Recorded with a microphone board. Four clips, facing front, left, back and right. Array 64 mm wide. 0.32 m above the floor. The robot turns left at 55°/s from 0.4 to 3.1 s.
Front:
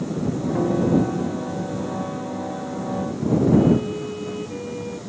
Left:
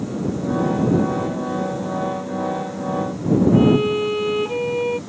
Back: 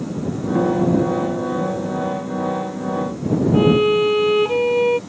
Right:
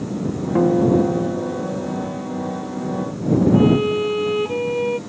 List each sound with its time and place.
0.6 s a guitar: 95° right; by 1.9 s 170° right
3.5 s a violin: 175° left